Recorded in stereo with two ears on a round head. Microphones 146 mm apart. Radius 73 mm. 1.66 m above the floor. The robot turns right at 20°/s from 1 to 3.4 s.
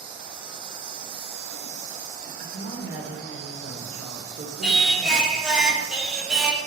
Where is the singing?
Centre (ahead or behind), 1.1 m.